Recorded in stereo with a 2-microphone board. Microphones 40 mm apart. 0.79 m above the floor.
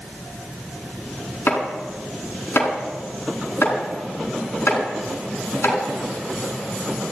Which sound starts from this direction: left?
Chopping, at 1.5 s.